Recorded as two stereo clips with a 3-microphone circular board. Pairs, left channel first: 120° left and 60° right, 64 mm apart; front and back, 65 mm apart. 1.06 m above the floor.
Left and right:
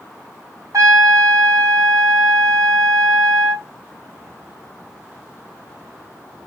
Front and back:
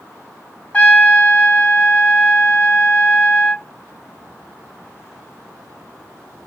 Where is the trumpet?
65° right, 1.6 m.